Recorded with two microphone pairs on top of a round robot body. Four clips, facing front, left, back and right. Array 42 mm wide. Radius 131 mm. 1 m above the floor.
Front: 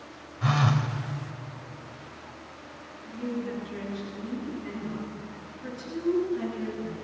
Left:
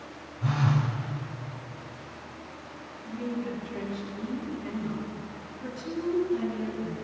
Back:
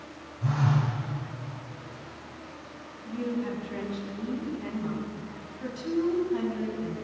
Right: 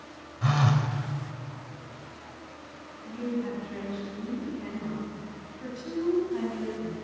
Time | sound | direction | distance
0.4 | a phone buzzing | 30° right | 3 m
3.0 | a woman speaking | 160° right | 10 m